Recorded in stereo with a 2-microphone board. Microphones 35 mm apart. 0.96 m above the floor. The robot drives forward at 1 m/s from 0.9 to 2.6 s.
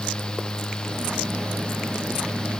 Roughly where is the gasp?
No gasp in this recording.